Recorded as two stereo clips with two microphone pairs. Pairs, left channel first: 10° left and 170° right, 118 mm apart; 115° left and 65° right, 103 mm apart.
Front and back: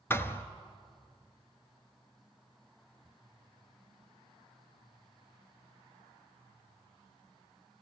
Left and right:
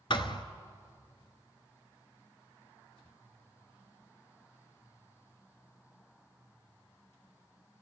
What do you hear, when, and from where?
0.1 s a thud: 80° left, 1.1 m